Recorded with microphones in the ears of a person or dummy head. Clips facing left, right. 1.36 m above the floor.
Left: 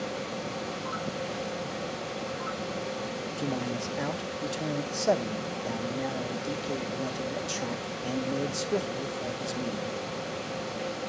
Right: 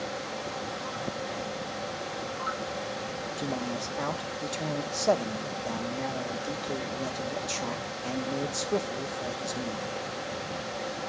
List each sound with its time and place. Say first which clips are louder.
0.0 s a fan: left 1 dB; 40° left (ahead or behind), 1.7 m
3.4 s a man speaking: left 1 dB; 5° left (ahead or behind), 0.7 m